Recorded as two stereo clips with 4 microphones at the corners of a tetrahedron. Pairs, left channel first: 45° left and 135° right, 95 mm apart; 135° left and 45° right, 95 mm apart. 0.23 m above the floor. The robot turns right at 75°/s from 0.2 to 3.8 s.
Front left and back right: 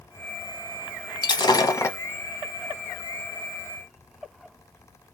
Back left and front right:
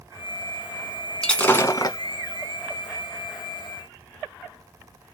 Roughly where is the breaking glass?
Ahead left.